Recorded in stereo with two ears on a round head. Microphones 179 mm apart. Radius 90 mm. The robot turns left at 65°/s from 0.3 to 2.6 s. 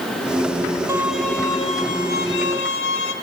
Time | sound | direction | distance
0.9 | a violin | 165° right | 1.8 m